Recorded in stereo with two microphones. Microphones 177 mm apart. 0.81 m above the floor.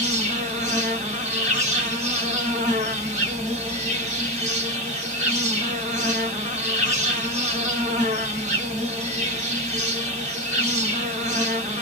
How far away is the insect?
About 1.1 m.